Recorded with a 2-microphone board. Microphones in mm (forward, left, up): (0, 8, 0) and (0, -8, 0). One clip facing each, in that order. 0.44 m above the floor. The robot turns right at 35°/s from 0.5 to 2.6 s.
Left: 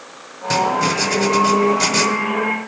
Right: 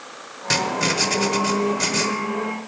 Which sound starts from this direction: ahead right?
Writing, at 0.5 s.